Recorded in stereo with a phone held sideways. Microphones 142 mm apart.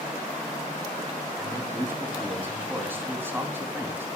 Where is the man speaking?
15° right (ahead or behind), 2.5 m.